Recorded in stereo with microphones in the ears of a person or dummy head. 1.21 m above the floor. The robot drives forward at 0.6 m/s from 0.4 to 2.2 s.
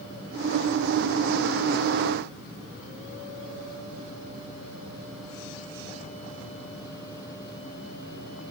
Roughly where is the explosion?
No explosion in this recording.